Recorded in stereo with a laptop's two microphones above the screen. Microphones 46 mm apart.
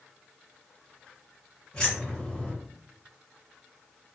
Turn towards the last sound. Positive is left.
turn(degrees=15)  # may be behind; listen again after turning